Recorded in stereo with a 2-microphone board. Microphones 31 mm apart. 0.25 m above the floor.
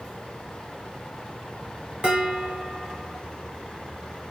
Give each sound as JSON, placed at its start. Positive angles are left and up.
{"t": 2.0, "sound": "dishes clattering", "side_deg": -30, "distance_m": 2.0}